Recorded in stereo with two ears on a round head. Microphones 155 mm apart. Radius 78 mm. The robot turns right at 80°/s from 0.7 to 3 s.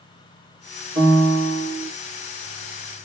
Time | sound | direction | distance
0.9 | a piano | 120° right | 1.8 m